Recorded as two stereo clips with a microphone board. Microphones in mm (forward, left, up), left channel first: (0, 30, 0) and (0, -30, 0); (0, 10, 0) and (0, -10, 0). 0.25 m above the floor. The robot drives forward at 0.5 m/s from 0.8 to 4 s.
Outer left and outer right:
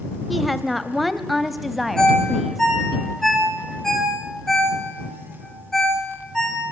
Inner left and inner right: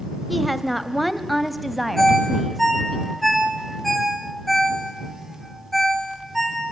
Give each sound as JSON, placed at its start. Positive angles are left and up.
{"t": 0.3, "sound": "a woman speaking", "side_deg": 0, "distance_m": 1.0}
{"t": 2.0, "sound": "a ringtone", "side_deg": 10, "distance_m": 7.0}